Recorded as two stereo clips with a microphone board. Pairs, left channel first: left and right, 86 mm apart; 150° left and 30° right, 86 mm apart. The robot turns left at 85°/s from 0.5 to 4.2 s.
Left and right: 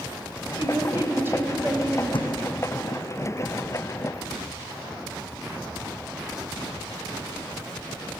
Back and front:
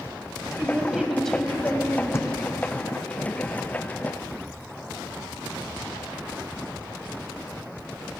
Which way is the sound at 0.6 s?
70° right.